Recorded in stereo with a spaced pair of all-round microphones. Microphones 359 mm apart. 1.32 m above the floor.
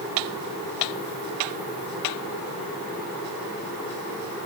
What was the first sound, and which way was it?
Only background noise.